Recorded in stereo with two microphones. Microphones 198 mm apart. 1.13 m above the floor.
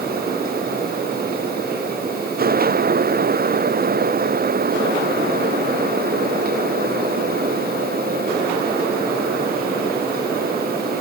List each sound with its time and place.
Only background noise.